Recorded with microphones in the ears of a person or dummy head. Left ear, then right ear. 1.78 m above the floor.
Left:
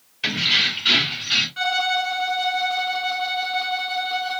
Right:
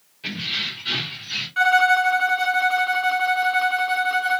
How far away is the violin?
About 0.6 m.